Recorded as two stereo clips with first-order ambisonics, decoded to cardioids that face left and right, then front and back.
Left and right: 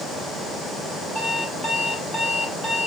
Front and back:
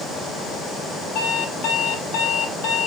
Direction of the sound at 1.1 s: Straight ahead.